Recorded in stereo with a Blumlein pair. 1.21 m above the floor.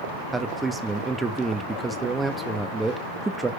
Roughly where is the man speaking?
Ahead.